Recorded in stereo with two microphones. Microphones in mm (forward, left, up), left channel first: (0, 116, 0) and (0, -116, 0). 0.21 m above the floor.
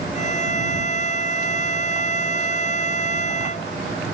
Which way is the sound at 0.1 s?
35° left (ahead or behind).